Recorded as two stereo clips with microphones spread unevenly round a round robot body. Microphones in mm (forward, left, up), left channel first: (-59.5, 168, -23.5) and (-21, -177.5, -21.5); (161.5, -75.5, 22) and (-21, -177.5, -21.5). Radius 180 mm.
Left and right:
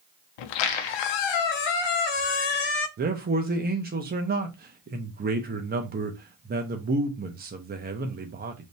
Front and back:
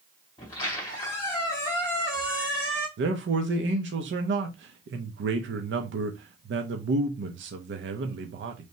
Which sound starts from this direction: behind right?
A man speaking, at 3.0 s.